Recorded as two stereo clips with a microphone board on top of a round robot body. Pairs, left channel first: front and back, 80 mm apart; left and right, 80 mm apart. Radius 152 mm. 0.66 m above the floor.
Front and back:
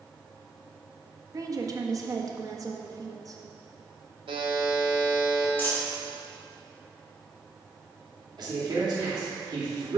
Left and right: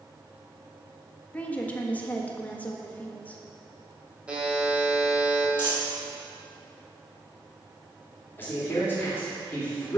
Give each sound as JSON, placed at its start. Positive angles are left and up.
{"t": 1.3, "sound": "a woman speaking", "azimuth_deg": 155, "distance_m": 1.5}
{"t": 4.3, "sound": "a buzzer", "azimuth_deg": -170, "distance_m": 1.7}
{"t": 5.6, "sound": "a dropped coin", "azimuth_deg": -65, "distance_m": 3.0}
{"t": 8.4, "sound": "a man speaking", "azimuth_deg": 155, "distance_m": 2.5}